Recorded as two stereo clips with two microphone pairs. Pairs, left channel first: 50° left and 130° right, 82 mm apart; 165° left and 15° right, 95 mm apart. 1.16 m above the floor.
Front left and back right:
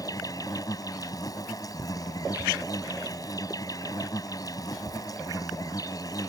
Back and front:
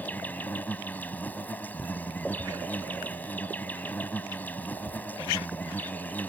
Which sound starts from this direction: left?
An insect, at 0.0 s.